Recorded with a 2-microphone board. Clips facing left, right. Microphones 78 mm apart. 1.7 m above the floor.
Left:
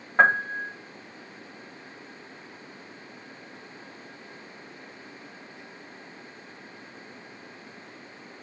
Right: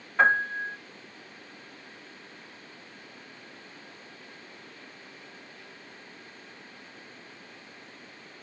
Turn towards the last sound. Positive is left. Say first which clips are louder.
# left 2 dB
turn(degrees=40)  # may be behind; listen again after turning